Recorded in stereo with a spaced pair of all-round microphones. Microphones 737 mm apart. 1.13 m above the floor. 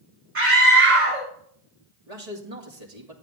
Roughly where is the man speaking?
Right.